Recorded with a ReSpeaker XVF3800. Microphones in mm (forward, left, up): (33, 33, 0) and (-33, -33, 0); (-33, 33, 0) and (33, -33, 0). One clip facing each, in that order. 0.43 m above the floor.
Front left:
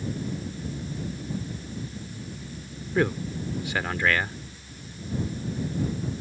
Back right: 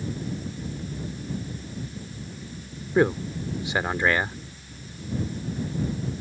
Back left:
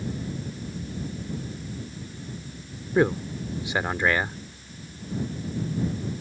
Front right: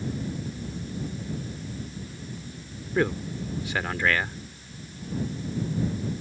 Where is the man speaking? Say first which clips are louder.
Back right 4 dB, back left 4 dB; 175° right.